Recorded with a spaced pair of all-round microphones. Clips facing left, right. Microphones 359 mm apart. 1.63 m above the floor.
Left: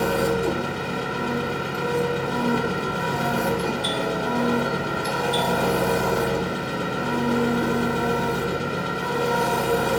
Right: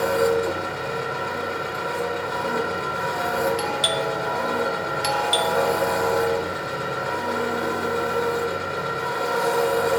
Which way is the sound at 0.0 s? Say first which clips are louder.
Right 2 dB; 45° left (ahead or behind).